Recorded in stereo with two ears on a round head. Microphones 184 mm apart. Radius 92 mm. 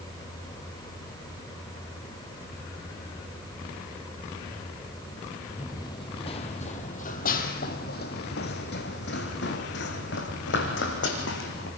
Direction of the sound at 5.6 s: 15° left (ahead or behind).